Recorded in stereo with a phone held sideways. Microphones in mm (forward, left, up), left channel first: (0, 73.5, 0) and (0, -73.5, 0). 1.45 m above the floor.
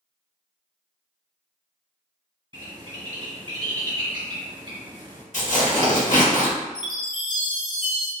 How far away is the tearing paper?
About 1.0 m.